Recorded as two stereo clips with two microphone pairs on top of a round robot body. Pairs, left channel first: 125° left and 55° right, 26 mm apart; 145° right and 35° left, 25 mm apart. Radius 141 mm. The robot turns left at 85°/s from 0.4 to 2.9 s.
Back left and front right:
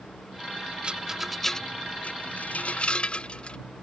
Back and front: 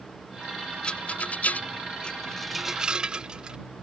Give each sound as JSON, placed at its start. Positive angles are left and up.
{"t": 0.8, "sound": "a rattle", "azimuth_deg": -95}